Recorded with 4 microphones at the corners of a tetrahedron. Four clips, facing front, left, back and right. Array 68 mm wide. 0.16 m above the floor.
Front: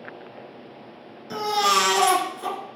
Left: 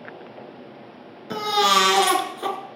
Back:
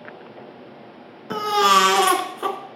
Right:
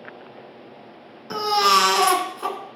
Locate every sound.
1.3 s a baby crying: 165° right, 1.0 m